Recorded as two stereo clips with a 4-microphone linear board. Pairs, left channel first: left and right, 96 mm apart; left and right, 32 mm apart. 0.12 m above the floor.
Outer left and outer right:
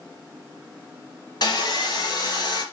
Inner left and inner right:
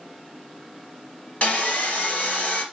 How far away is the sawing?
About 2.5 m.